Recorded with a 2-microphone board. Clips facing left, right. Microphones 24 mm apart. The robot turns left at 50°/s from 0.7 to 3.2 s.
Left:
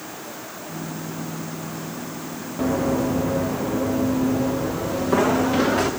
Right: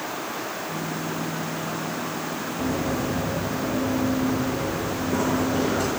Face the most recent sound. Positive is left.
turn(degrees=75)  # may be behind; listen again after turning